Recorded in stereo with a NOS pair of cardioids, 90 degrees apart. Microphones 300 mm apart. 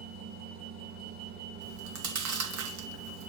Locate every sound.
0.0 s a machine running: 70° right, 1.4 m
1.6 s chewing: 70° right, 2.5 m